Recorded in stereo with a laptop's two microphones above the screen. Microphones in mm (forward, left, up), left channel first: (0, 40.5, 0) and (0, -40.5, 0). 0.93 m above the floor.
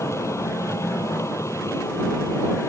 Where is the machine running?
35° left (ahead or behind).